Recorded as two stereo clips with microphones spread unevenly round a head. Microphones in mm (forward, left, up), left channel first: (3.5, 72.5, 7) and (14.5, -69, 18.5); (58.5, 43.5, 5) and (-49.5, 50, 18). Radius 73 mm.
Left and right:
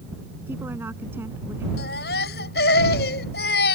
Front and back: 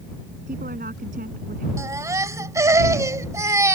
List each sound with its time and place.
0.5 s a woman speaking: 160° right
1.8 s a baby crying: 115° left